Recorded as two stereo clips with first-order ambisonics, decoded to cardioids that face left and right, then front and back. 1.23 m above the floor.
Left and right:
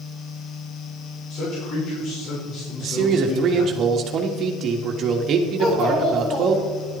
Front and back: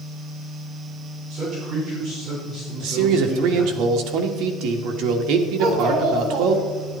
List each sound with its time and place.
1.3 s a man speaking: 130° left, 5 m
2.8 s a man speaking: 150° right, 1.7 m
5.6 s a child speaking: 130° left, 5.5 m